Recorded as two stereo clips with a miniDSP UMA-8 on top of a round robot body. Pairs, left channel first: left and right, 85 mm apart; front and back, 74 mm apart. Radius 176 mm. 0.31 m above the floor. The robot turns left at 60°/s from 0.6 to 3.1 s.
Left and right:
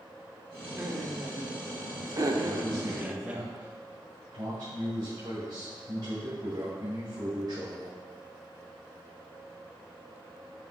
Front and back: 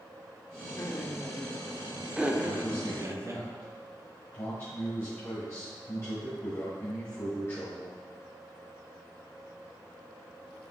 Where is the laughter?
20° right, 1.5 m; by 3.4 s 160° right, 1.5 m.